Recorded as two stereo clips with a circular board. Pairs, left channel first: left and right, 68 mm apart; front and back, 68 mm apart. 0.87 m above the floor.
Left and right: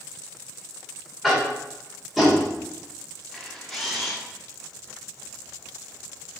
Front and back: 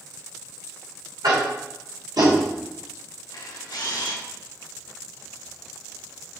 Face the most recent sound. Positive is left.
turn(degrees=0)